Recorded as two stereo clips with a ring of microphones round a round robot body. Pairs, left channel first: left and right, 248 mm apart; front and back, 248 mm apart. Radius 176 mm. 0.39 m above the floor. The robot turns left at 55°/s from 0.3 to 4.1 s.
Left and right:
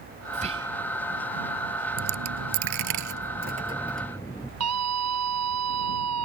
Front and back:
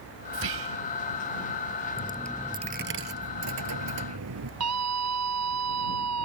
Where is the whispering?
150° right; by 0.8 s 175° right.